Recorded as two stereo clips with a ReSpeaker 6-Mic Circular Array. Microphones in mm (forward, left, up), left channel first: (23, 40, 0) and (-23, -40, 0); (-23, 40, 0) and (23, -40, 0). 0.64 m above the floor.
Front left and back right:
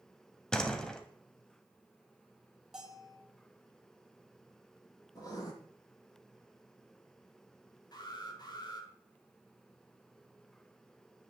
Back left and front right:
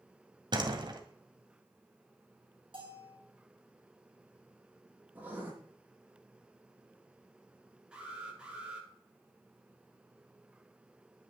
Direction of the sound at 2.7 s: 35° right.